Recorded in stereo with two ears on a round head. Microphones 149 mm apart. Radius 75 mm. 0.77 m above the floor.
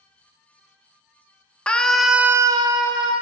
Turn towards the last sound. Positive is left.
turn(degrees=-25)  # may be behind; listen again after turning